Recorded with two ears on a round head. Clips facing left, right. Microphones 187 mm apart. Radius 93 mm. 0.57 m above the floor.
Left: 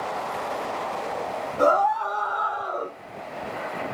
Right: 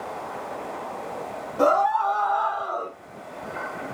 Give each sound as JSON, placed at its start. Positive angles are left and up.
{"t": 1.6, "sound": "a scream", "side_deg": -25, "distance_m": 2.5}